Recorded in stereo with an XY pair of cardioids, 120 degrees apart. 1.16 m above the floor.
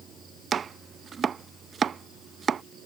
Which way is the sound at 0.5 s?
40° right.